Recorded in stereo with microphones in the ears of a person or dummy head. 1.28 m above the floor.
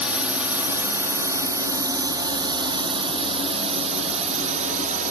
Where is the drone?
5° right (ahead or behind); by 5.1 s 45° right (ahead or behind).